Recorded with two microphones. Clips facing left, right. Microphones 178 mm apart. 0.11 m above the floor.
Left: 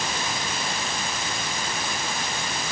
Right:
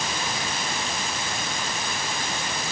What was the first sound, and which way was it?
Only background noise.